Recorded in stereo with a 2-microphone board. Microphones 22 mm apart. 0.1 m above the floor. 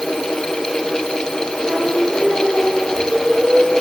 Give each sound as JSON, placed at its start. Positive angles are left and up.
{"t": 1.7, "sound": "singing", "side_deg": -80, "distance_m": 9.5}